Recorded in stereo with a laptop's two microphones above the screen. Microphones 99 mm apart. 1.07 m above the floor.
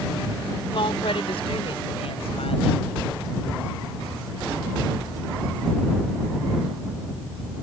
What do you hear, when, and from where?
0.7 s a woman speaking: 65° left (ahead or behind); by 2.9 s 80° left